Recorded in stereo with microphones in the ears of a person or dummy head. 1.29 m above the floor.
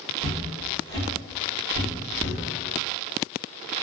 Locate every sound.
0.2 s footsteps: 20° left (ahead or behind), 1.3 m; by 2.4 s 10° left (ahead or behind), 1.9 m